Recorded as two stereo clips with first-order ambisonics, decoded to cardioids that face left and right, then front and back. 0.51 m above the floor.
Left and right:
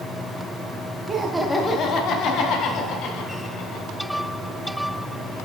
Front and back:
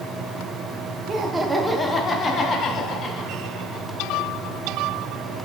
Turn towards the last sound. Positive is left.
turn(degrees=55)